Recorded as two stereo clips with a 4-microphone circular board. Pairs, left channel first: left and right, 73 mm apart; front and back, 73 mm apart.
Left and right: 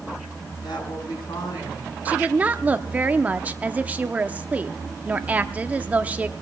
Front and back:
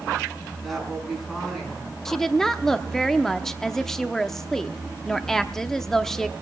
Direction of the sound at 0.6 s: 90° left.